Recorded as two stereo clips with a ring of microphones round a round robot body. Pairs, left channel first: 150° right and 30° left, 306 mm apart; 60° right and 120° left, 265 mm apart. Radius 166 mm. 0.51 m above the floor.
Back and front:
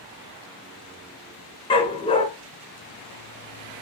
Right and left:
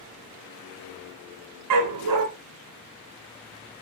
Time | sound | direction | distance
1.7 | a dog barking | 135° left | 2.5 m